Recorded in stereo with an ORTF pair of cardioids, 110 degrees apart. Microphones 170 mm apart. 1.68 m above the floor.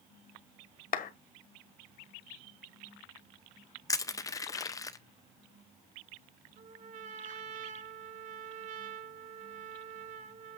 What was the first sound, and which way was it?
A clap, 55° left.